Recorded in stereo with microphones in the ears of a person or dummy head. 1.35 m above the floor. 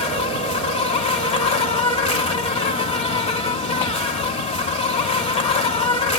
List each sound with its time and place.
0.0 s an insect: 25° left (ahead or behind), 0.7 m